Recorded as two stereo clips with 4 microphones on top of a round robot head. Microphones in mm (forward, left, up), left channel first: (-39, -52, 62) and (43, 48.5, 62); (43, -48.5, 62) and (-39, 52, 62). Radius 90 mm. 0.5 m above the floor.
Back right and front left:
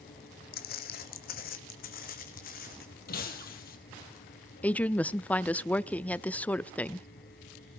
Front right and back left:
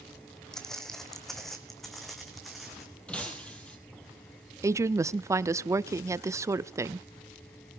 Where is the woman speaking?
165° left, 0.7 m.